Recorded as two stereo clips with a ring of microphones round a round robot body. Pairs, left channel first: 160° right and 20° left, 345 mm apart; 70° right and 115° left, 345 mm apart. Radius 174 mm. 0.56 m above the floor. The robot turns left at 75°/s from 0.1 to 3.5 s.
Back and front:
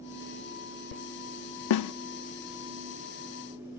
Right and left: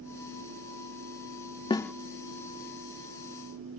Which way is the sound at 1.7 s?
140° right.